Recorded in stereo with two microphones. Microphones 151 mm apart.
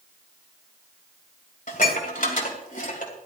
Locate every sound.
1.7 s dishes clattering: 65° left (ahead or behind), 2.5 m